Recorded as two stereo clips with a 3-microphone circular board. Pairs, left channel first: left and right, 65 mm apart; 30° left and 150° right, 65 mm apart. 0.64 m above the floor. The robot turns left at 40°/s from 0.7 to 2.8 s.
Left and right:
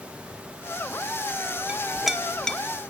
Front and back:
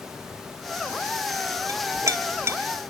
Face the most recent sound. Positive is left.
turn(degrees=155)